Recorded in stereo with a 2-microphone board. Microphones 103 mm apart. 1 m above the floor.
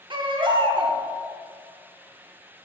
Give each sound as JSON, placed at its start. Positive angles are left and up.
{"t": 0.1, "sound": "a baby crying", "side_deg": -50, "distance_m": 0.9}